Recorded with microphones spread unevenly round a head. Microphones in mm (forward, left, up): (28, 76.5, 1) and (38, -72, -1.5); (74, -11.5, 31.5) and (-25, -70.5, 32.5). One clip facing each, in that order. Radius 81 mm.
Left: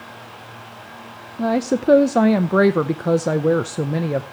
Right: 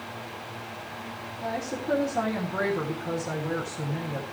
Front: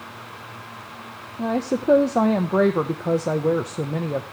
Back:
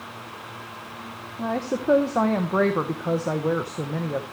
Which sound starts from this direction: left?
A woman speaking, at 1.4 s.